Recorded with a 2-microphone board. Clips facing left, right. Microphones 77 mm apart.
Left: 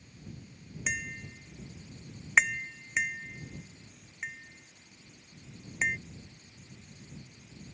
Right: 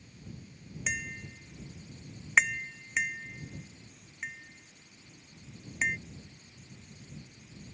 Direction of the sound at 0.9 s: 5° left (ahead or behind).